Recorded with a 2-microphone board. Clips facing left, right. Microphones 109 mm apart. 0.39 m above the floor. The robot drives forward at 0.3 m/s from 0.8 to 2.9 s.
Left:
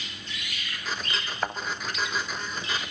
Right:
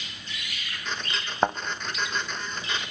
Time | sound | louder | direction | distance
1.4 | a thud | right 8 dB | 45° right (ahead or behind) | 2 m